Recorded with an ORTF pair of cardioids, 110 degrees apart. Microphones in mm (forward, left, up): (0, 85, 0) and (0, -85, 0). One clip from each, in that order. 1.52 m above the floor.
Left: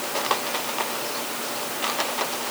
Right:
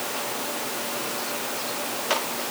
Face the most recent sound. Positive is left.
No sound to turn to.